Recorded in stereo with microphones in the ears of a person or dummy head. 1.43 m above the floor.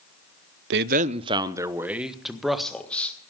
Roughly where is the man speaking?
Right.